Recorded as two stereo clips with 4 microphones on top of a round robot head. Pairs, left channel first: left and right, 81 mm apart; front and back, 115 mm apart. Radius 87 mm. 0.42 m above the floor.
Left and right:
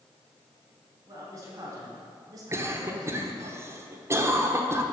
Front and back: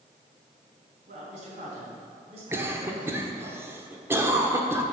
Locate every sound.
1.1 s a man speaking: 150° right, 4 m; by 3.5 s 120° right, 1.9 m
2.5 s a cough: 120° right, 1.3 m